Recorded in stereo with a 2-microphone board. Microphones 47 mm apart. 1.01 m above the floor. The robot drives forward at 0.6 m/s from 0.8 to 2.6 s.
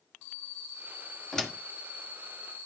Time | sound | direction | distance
1.3 | a door slam | 10° left (ahead or behind) | 1.7 m